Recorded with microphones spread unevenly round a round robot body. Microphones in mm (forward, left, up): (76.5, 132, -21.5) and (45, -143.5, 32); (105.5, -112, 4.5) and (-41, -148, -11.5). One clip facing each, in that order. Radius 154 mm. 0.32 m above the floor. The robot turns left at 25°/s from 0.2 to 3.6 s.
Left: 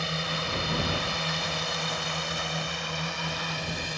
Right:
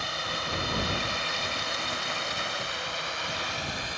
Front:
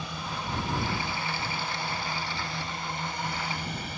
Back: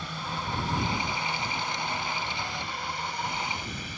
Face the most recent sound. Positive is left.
turn(degrees=55)